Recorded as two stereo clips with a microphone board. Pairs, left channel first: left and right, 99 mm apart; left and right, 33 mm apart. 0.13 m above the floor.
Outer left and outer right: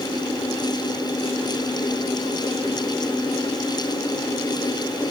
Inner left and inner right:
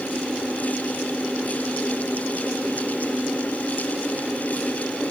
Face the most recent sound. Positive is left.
No sound to turn to.